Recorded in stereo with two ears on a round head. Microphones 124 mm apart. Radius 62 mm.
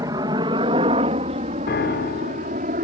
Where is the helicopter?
25° right (ahead or behind); by 2.8 s 60° right (ahead or behind).